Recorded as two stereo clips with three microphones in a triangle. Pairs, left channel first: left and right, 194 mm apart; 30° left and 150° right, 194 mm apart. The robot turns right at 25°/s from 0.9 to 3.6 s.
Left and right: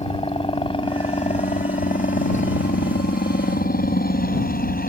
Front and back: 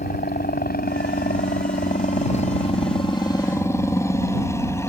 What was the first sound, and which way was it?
A helicopter, 35° left.